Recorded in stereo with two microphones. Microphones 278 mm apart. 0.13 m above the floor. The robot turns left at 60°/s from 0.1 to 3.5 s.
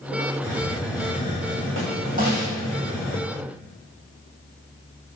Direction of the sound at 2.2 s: 30° right (ahead or behind).